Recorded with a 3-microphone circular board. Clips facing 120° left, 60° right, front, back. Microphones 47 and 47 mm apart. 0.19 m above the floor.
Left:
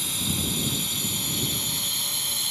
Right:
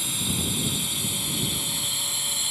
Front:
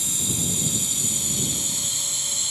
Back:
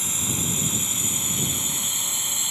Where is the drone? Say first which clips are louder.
Even, even; 145° right; by 2.5 s 140° right.